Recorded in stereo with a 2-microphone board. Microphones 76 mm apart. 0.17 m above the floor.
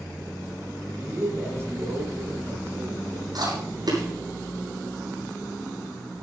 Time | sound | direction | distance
1.0 | a man speaking | 35° right (ahead or behind) | 7 m
3.4 | chewing | 60° right (ahead or behind) | 8 m